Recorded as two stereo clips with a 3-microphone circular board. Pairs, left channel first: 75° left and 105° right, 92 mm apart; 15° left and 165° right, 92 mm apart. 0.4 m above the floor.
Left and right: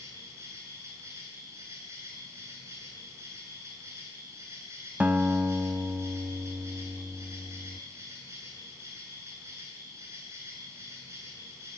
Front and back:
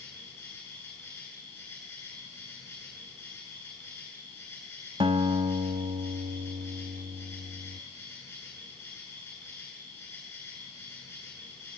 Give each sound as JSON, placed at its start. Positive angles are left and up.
{"t": 0.0, "sound": "an insect", "azimuth_deg": -45, "distance_m": 8.5}
{"t": 5.0, "sound": "a guitar", "azimuth_deg": 180, "distance_m": 0.7}